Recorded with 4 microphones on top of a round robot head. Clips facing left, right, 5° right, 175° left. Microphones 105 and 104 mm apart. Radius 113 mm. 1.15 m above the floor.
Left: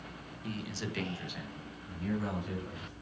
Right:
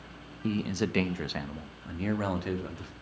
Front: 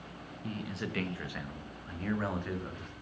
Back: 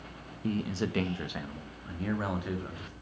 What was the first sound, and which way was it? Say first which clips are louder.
A man speaking: right 10 dB, back 7 dB; 130° right.